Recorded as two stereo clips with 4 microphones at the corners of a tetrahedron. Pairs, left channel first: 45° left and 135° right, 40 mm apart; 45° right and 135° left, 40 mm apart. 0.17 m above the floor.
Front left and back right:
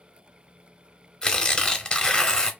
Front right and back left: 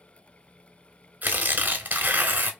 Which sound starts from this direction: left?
Tearing paper, at 1.2 s.